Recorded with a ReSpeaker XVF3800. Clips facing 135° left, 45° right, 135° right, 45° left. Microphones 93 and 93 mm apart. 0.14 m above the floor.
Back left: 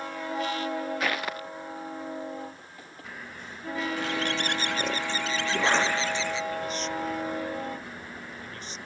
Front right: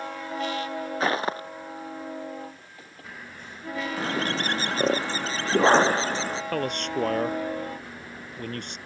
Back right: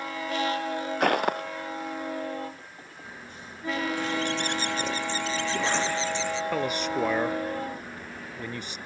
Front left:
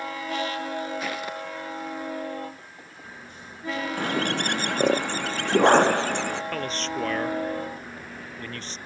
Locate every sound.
1.0 s footsteps: 105° right
4.0 s a bird: 10° left
6.5 s a man speaking: 60° right